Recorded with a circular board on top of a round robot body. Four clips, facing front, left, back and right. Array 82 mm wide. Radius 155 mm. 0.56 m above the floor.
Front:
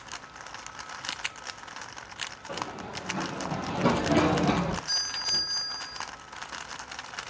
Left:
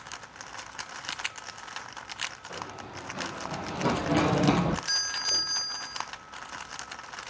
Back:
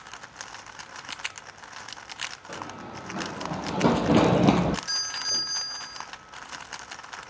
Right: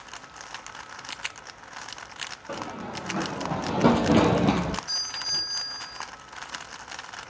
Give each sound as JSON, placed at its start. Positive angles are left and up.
{"t": 2.5, "sound": "running footsteps", "azimuth_deg": -100, "distance_m": 2.5}
{"t": 4.9, "sound": "a doorbell", "azimuth_deg": 140, "distance_m": 4.5}